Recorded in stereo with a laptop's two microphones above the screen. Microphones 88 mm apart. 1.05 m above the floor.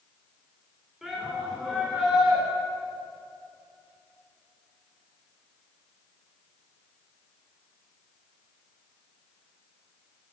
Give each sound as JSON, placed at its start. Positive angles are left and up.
{"t": 1.0, "sound": "a shout", "side_deg": -5, "distance_m": 4.5}